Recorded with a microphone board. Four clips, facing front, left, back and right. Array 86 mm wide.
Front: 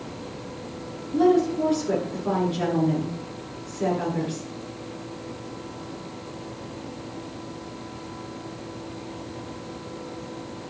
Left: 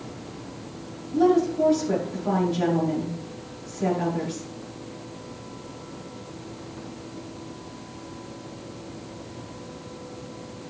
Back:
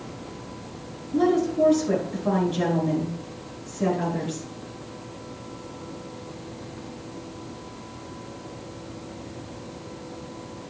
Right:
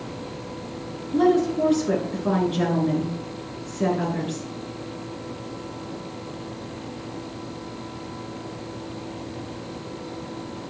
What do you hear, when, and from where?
1.1 s a woman speaking: 95° right, 8 m